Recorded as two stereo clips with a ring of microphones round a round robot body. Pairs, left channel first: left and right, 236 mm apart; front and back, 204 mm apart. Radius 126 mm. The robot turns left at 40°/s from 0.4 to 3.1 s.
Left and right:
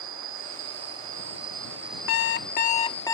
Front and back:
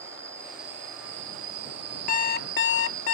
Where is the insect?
100° right; by 3.1 s 150° left.